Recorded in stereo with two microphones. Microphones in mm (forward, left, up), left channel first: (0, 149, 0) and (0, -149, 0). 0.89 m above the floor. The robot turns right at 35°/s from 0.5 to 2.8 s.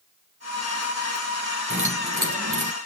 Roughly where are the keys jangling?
Right.